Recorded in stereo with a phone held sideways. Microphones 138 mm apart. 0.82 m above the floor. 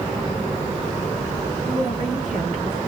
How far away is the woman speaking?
About 1.8 m.